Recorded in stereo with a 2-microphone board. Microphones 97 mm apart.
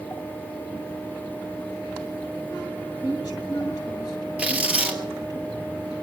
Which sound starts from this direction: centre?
Tearing paper, at 4.4 s.